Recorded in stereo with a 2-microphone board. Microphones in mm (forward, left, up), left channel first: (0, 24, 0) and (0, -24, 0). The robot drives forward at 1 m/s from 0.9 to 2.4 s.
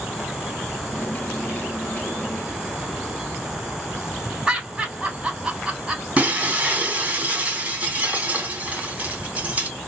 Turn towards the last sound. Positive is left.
turn(degrees=-25)  # may be behind; listen again after turning